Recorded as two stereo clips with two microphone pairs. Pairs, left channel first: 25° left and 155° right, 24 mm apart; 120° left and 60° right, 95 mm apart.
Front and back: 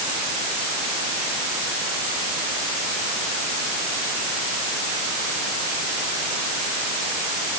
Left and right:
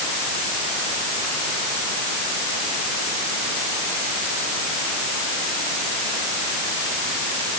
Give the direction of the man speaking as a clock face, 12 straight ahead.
No man speaking in this recording.